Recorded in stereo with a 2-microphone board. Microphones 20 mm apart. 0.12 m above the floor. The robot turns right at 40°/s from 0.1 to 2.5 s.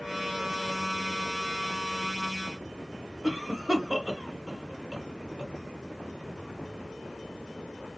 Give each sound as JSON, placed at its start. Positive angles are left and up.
{"t": 3.2, "sound": "a cough", "side_deg": -25, "distance_m": 1.6}